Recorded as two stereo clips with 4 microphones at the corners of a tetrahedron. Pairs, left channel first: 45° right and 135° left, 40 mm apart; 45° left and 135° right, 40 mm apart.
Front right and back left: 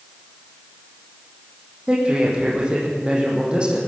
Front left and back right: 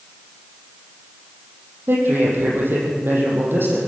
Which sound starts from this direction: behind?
A man speaking, at 1.9 s.